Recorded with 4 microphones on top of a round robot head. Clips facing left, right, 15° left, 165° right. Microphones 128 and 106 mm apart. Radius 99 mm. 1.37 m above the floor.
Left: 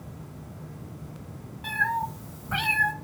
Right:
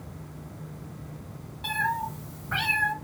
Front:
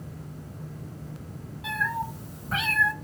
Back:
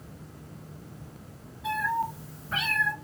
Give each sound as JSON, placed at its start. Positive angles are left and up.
{"t": 1.6, "sound": "a cat meowing", "azimuth_deg": -35, "distance_m": 1.6}